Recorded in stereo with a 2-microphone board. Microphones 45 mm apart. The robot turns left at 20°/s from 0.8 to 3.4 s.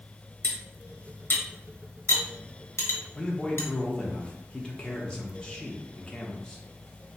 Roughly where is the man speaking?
Centre.